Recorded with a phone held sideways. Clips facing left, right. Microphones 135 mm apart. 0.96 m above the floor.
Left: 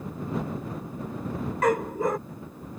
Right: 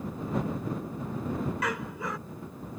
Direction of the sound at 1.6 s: 50° left (ahead or behind).